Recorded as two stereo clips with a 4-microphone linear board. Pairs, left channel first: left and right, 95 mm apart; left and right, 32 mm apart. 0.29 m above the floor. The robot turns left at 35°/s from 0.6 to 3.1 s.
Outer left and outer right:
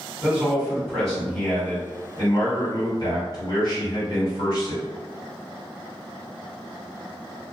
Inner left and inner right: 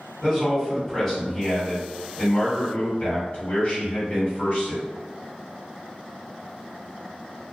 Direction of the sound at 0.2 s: 170° right.